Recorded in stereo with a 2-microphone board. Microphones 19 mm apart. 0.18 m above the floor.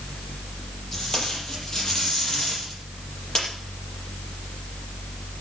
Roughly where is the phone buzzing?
I don't hear a phone buzzing.